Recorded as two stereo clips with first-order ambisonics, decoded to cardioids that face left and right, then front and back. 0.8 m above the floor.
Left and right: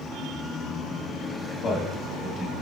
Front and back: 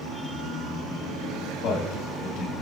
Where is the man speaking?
25° left, 1.6 m.